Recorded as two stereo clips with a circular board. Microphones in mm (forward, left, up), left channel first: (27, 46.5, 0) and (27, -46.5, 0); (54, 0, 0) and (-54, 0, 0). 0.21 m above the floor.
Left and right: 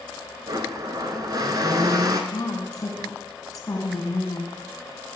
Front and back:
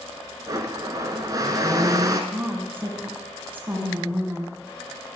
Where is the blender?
130° right, 0.7 m.